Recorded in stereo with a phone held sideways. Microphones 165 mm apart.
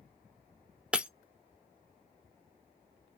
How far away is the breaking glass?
About 0.6 m.